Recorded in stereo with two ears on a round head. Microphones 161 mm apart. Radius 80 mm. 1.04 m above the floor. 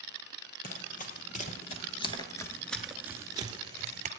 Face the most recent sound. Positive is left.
turn(degrees=-40)  # may be behind; listen again after turning